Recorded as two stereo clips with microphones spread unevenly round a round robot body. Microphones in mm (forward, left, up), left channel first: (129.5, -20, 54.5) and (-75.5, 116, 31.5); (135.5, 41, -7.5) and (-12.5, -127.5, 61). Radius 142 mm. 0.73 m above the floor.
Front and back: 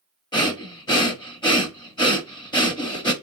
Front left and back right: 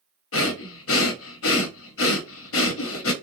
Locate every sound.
0.3 s breathing: 40° left, 0.9 m